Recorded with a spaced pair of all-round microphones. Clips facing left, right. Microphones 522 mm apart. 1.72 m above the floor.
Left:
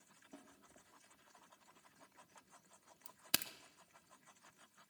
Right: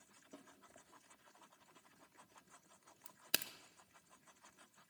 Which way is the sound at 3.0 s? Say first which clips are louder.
Left 1 dB; 25° left (ahead or behind).